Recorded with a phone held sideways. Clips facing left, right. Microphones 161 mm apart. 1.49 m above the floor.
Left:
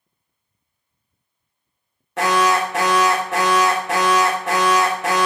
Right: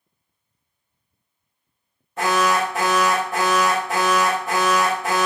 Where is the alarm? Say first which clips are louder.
Left 2 dB; 80° left, 0.5 m.